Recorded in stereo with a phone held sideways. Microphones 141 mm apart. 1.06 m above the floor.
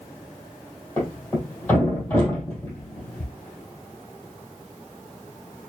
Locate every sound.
1.0 s a thud: 15° left (ahead or behind), 3 m